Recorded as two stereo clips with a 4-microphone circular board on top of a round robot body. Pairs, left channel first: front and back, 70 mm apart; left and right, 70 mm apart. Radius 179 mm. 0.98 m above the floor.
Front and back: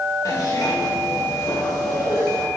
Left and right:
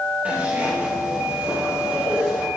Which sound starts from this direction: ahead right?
A zipper, at 0.2 s.